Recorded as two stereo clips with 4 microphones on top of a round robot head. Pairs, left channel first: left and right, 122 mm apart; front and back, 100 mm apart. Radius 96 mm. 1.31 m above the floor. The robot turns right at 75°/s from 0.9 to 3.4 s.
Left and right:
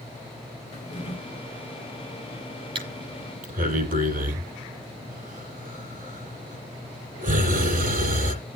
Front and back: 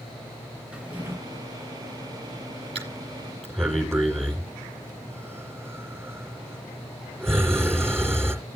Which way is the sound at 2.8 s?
135° right.